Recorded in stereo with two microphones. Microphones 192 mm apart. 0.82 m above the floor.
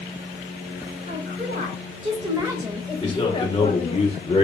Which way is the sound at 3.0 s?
30° left (ahead or behind).